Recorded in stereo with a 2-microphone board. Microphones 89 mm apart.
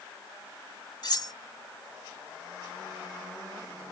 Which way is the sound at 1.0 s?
55° left (ahead or behind).